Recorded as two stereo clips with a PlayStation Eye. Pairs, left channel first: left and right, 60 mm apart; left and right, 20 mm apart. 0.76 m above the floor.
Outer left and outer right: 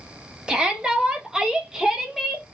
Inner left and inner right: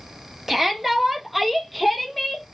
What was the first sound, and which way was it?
A shout, 15° right (ahead or behind).